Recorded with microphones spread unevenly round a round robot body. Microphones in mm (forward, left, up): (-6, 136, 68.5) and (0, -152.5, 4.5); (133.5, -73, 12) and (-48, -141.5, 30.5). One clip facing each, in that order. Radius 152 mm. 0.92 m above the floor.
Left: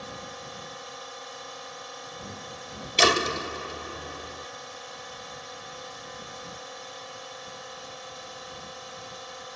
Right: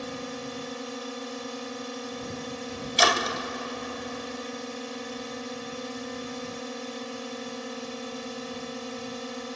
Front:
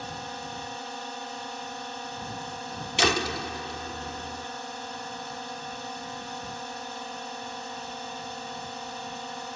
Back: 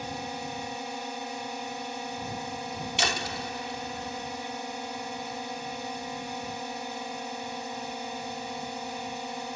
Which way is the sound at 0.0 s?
85° right.